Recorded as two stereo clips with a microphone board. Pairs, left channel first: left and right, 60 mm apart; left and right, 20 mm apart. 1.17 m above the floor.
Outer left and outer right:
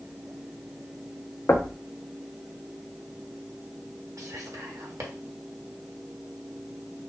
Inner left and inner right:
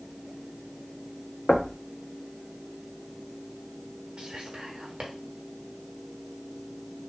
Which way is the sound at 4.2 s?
65° right (ahead or behind).